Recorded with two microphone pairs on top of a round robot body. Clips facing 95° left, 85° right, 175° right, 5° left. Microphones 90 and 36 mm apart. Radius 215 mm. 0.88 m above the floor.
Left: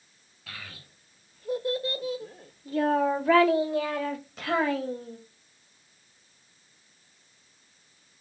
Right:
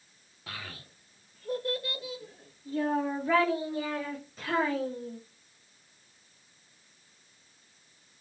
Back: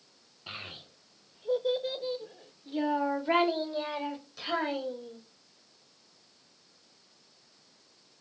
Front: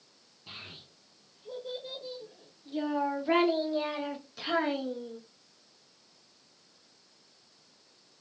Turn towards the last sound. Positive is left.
turn(degrees=75)